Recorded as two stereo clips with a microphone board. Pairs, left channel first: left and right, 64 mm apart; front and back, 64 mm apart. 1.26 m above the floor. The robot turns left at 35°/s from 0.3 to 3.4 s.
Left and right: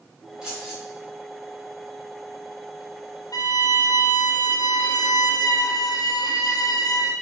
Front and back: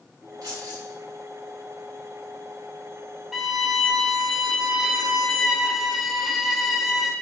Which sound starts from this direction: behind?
Keys jangling, at 0.4 s.